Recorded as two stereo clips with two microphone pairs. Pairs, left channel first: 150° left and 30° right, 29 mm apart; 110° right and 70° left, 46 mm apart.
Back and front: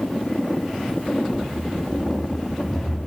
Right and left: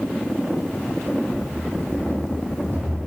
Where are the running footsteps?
90° left, 1.3 m; by 3.0 s 55° left, 2.5 m.